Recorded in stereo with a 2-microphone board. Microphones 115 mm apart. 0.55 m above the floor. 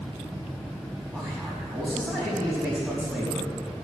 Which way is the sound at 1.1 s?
15° right (ahead or behind).